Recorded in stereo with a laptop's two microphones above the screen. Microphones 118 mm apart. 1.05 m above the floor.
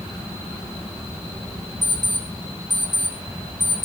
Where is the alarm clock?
80° right, 3.5 m.